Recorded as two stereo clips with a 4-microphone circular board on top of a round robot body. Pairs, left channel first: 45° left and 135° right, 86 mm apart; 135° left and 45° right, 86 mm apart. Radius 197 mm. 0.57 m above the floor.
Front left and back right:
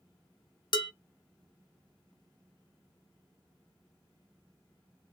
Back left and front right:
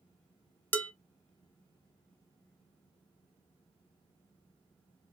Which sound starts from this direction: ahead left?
Dishes clattering, at 0.7 s.